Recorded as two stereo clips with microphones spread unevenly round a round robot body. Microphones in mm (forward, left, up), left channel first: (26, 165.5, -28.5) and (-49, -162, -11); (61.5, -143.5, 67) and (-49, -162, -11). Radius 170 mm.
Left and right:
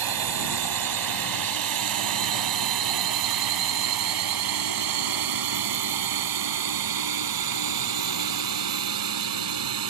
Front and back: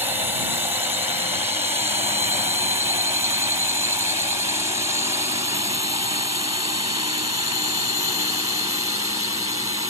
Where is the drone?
125° right; by 9.9 s 130° right.